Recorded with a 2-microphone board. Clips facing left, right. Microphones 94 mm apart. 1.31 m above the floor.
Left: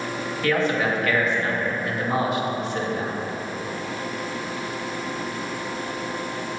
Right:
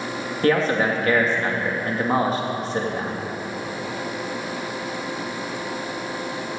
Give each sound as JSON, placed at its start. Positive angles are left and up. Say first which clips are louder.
{"t": 0.4, "sound": "a man speaking", "louder": "right 3 dB", "side_deg": -35, "distance_m": 2.5}